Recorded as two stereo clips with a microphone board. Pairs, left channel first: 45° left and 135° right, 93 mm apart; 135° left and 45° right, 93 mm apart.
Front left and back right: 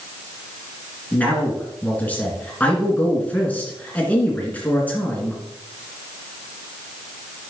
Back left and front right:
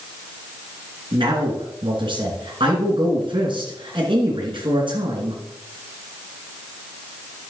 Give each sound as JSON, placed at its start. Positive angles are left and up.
{"t": 1.1, "sound": "a man speaking", "azimuth_deg": -30, "distance_m": 2.5}